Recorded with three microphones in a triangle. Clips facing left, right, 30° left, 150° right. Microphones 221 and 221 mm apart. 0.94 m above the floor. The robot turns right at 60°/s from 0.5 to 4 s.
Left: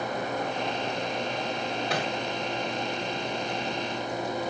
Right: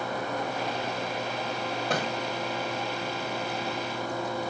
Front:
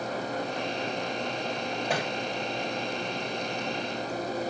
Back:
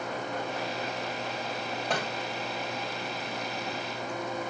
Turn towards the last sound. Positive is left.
turn(degrees=75)